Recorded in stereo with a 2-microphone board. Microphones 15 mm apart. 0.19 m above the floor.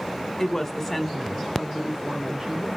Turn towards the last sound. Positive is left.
turn(degrees=-35)  # may be behind; listen again after turning